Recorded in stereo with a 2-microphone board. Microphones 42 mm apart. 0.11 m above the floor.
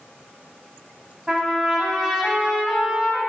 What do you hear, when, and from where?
1.3 s a trumpet: 15° right (ahead or behind), 2.5 m